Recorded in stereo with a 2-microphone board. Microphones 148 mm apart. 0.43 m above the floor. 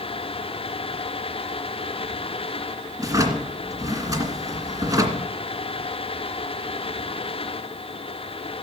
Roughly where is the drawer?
Right.